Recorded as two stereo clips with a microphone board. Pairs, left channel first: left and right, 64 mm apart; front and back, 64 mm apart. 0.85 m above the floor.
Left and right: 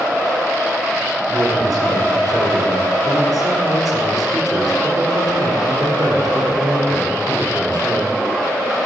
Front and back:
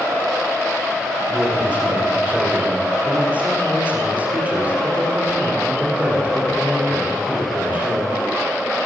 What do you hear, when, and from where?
1.3 s a man speaking: 110° right, 10 m